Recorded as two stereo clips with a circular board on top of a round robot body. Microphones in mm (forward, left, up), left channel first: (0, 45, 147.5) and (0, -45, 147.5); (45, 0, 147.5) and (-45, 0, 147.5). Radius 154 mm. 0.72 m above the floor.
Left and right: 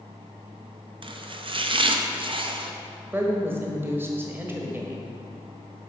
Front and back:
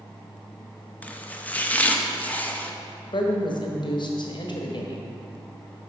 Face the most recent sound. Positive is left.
turn(degrees=-25)